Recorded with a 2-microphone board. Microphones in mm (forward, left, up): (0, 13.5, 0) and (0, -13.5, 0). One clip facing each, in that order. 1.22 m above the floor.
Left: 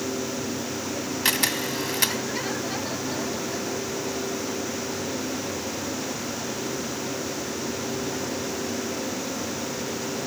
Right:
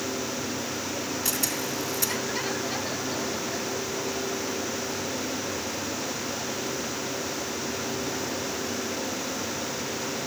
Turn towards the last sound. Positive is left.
turn(degrees=65)  # may be behind; listen again after turning